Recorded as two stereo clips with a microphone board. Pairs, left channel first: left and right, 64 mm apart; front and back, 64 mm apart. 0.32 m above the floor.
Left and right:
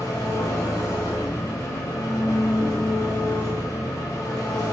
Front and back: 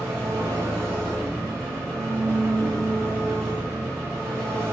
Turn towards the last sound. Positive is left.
turn(degrees=130)